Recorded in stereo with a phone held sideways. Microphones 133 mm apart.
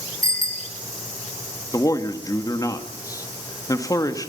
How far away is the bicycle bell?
About 3.5 m.